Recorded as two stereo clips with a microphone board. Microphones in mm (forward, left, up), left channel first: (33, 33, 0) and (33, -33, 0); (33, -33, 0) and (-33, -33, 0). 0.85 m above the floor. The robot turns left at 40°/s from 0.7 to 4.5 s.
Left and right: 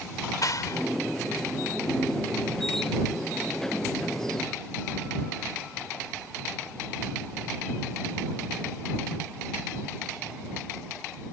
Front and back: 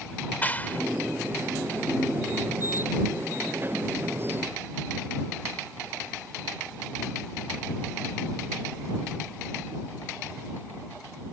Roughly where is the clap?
Ahead left.